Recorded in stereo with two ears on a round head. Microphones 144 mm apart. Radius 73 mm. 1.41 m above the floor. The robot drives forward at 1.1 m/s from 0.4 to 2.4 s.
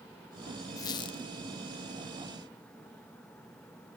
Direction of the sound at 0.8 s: 20° left (ahead or behind).